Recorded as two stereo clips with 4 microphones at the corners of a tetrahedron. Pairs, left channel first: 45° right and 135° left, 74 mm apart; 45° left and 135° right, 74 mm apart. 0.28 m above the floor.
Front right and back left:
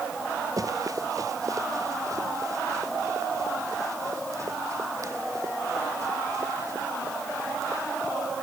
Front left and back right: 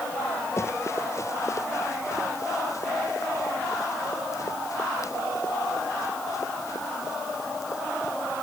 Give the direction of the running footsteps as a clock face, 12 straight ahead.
9 o'clock.